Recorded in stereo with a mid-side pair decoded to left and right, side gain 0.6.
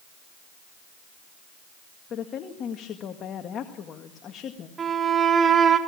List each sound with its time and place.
2.1 s a woman speaking: 50° left, 1.9 m
4.8 s a violin: 35° right, 4 m